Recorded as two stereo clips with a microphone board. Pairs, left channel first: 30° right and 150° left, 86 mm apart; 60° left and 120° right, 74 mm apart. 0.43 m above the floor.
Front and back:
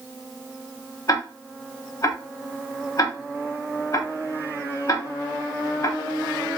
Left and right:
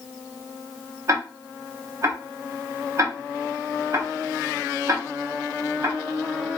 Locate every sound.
1.1 s ticking: 75° right, 0.5 m